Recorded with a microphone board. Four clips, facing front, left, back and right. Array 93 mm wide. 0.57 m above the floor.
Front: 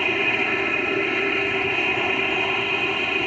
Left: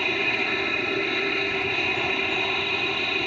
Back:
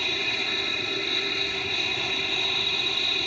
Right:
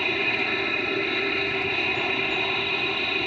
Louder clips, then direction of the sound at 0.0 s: Even, front 8 dB; 10° left.